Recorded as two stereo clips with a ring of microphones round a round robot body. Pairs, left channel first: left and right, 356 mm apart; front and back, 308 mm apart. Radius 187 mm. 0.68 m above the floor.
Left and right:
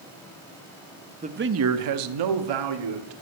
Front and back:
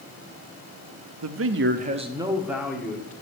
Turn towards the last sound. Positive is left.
turn(degrees=-85)